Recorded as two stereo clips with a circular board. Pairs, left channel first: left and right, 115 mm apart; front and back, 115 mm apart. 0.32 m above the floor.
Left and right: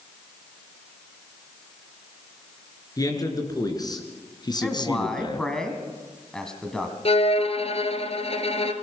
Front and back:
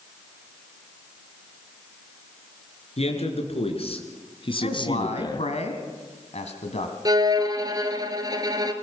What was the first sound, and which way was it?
A man speaking, 30° left.